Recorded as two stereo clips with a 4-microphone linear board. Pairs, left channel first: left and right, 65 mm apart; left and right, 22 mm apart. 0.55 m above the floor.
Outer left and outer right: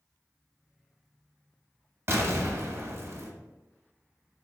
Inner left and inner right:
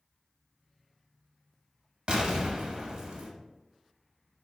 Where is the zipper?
No zipper in this recording.